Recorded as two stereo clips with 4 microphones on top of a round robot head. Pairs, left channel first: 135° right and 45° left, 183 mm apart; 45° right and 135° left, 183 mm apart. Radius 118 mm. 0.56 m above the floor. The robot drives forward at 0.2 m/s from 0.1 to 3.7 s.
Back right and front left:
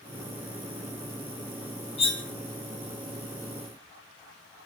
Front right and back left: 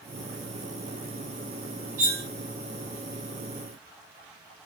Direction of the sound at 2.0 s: 170° left.